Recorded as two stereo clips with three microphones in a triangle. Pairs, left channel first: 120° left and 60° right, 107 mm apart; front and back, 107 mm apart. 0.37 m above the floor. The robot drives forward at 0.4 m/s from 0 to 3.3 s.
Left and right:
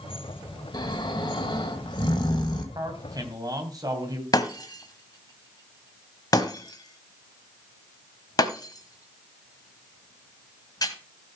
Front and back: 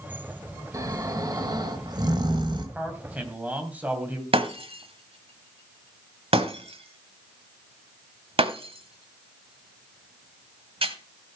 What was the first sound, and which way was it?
Snoring, 135° left.